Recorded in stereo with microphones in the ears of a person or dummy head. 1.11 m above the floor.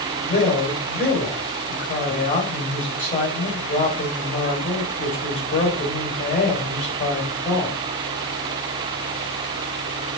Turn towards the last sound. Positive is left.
turn(degrees=45)  # may be behind; listen again after turning